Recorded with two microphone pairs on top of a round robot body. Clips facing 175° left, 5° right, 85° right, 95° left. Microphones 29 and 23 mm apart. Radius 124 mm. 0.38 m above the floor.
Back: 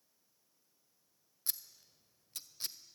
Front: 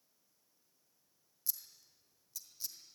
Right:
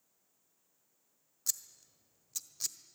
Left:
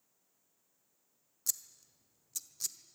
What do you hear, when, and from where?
1.5 s scissors: 150° right, 1.4 m